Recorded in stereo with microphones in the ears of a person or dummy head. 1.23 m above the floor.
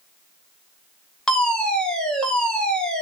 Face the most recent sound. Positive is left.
turn(degrees=5)  # may be behind; listen again after turning